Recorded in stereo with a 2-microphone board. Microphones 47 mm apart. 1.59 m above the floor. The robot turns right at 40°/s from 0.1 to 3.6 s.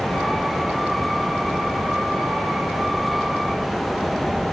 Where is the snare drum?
No snare drum in this recording.